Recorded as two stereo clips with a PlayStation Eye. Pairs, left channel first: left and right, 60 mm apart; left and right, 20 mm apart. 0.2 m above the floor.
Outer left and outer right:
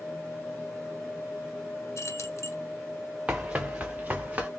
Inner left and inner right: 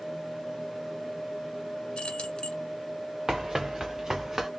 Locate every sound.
2.0 s keys jangling: 55° left (ahead or behind), 1.5 m
3.3 s running footsteps: 20° right (ahead or behind), 1.1 m; by 4.5 s 25° right (ahead or behind), 2 m